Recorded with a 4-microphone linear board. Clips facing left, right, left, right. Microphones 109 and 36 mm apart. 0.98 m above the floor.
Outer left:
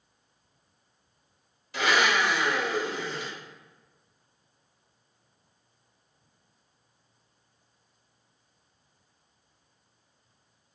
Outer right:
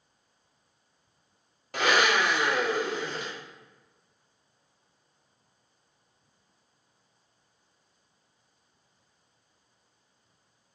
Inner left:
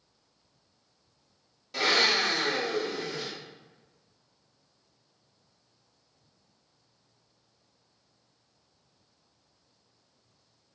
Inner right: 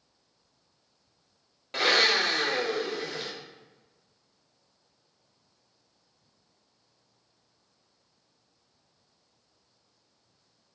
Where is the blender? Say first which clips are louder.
Outer right 1 dB, inner right 1 dB; 50° right (ahead or behind), 0.9 m.